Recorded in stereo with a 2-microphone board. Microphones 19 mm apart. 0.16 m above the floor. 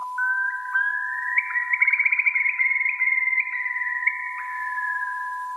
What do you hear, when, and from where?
0.2 s a bird: centre (ahead or behind), 0.5 m